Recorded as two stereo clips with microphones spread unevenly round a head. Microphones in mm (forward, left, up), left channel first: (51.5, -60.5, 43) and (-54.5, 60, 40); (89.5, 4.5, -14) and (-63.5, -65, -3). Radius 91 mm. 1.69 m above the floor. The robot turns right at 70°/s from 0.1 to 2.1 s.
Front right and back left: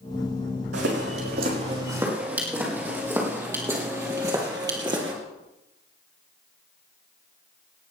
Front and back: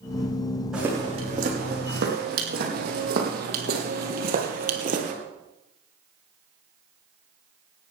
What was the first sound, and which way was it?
Footsteps, 120° left.